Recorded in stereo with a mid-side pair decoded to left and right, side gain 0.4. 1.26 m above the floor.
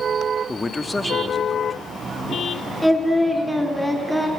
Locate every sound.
0.5 s a man speaking: 20° left, 2 m
2.8 s singing: 5° right, 4.5 m